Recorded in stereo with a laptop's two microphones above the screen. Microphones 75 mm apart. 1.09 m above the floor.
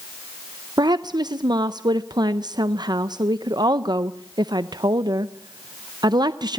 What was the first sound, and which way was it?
A woman speaking, 70° right (ahead or behind).